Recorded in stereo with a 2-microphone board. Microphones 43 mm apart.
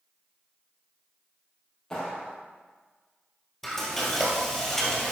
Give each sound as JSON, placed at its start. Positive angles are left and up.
{"t": 1.9, "sound": "a clap", "side_deg": 15, "distance_m": 3.0}
{"t": 3.6, "sound": "frying", "side_deg": 5, "distance_m": 2.0}